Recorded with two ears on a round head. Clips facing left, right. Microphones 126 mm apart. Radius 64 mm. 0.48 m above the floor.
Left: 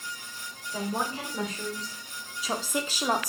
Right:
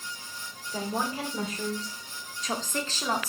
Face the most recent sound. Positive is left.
turn(degrees=15)  # may be behind; listen again after turning